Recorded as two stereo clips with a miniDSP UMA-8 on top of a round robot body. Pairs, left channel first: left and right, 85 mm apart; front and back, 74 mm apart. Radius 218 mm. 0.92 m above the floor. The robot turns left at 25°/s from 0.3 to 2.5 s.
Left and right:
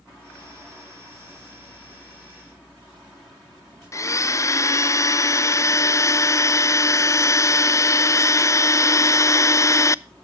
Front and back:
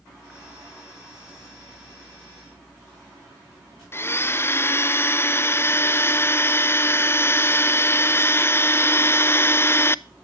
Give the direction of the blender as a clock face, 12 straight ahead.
10 o'clock.